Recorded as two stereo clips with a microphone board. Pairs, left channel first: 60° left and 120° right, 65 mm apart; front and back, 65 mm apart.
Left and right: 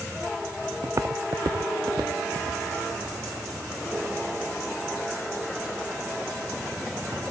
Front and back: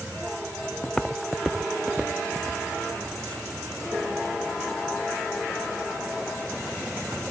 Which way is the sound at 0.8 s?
75° right.